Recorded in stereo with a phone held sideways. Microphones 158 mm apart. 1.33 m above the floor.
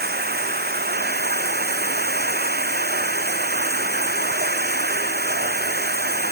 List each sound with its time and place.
0.0 s running water: 85° right